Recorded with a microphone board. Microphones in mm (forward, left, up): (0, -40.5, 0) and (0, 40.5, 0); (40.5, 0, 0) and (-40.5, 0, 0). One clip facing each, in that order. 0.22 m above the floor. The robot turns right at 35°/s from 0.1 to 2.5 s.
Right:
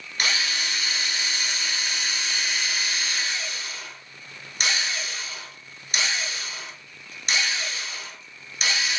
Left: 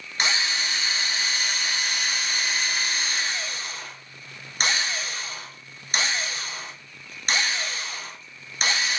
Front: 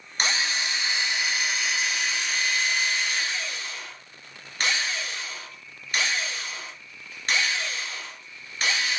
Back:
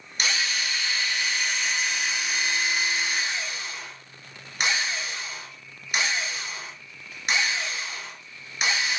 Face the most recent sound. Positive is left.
turn(degrees=110)